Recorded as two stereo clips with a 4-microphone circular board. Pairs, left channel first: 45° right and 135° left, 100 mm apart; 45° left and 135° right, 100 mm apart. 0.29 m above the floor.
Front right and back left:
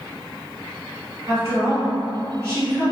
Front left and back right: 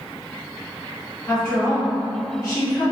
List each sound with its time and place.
1.3 s a woman speaking: 85° left, 1.9 m